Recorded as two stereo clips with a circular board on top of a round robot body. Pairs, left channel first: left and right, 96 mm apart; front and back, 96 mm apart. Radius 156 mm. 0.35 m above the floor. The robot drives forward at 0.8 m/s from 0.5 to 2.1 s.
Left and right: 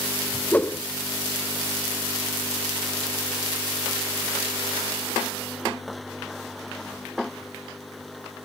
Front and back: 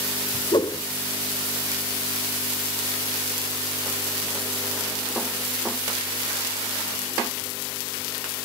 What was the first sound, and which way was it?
A whoosh, 20° left.